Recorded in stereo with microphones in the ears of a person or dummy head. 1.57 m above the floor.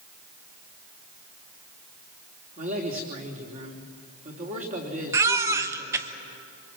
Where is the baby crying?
5° right (ahead or behind), 1.0 m.